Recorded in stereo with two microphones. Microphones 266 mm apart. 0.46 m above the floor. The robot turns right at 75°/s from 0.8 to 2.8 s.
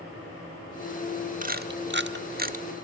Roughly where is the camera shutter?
Right.